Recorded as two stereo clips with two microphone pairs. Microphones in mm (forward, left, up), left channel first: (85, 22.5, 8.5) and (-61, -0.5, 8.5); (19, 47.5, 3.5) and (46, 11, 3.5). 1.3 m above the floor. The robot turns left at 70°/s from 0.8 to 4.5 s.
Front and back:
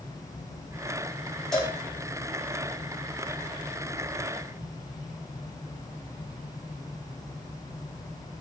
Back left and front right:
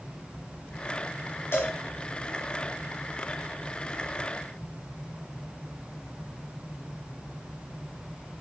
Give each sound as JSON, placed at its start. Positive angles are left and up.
{"t": 1.5, "sound": "a cowbell", "azimuth_deg": 95, "distance_m": 4.0}